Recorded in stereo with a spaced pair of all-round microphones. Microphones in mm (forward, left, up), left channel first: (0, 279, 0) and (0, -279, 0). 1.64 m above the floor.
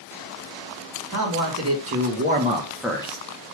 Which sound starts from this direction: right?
A man speaking, at 1.1 s.